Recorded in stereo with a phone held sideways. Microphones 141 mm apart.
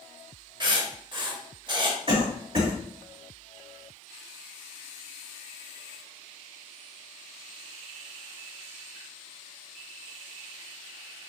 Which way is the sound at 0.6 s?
35° right (ahead or behind).